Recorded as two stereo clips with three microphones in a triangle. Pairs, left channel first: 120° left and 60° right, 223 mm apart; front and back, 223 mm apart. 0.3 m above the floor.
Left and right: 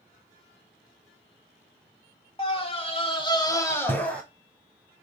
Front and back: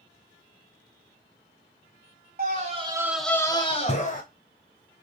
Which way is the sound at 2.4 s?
170° left.